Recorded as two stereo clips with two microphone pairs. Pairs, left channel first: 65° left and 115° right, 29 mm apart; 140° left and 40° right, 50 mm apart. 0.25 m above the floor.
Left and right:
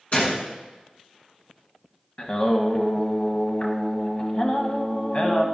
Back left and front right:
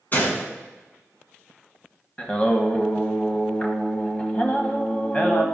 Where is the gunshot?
100° left, 2.5 m.